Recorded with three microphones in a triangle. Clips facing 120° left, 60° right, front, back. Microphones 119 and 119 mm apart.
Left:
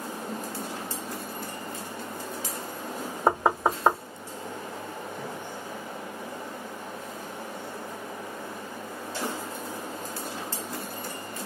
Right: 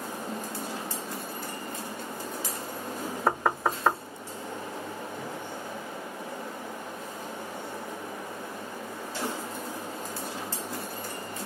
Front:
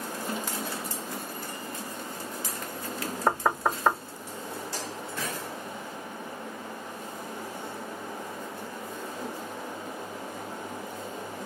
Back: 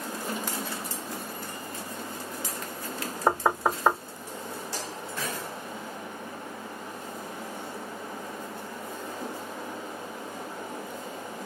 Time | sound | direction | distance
3.3 | knocking | 120° left | 0.5 m